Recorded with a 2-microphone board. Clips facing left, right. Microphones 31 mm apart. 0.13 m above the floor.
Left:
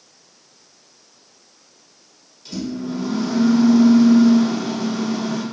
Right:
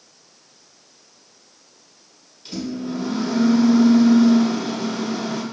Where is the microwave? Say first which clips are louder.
Left 1 dB; 25° right (ahead or behind), 1.3 m.